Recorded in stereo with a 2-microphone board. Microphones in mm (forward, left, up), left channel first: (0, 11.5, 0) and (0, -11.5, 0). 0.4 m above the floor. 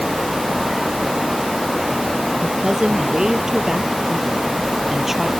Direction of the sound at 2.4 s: 40° right (ahead or behind).